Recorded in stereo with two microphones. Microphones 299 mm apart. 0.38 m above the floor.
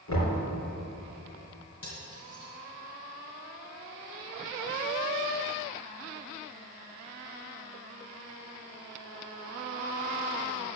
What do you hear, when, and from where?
0.1 s knocking: 70° left (ahead or behind), 3 m
1.8 s cutlery clinking: 75° left (ahead or behind), 2 m